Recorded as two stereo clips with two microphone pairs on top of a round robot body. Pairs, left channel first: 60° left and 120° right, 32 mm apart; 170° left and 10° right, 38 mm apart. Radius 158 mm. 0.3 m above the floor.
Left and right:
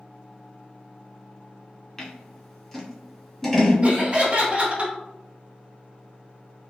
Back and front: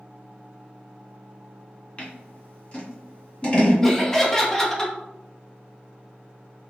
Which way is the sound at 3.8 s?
120° right.